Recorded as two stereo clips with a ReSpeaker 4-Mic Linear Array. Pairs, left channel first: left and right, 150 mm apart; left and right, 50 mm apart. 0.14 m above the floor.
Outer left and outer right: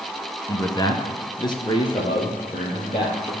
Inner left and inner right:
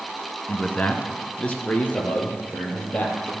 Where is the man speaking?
25° left (ahead or behind), 1.1 m; by 3.3 s 30° left (ahead or behind), 3 m.